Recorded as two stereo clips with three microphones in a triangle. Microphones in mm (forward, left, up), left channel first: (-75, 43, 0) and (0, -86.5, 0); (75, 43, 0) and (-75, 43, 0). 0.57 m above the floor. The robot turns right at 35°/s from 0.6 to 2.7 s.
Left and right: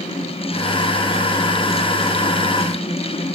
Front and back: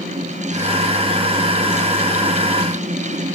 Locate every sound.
Only background noise.